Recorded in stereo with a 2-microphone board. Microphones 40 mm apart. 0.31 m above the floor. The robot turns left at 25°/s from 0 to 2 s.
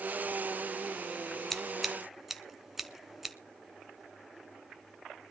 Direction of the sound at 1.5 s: 5° left (ahead or behind).